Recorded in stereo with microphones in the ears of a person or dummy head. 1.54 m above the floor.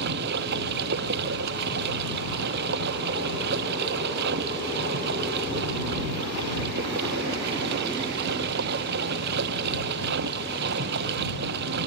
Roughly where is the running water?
Right.